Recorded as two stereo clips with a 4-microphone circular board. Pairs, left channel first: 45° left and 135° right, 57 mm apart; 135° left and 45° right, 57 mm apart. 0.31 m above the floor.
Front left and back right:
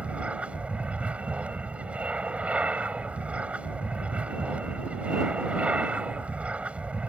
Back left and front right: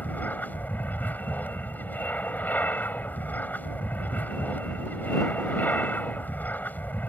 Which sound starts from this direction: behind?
An aircraft, at 0.0 s.